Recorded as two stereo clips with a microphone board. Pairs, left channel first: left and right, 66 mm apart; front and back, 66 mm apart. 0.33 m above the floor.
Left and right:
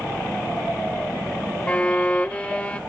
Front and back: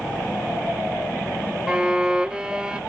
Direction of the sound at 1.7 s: 125° left.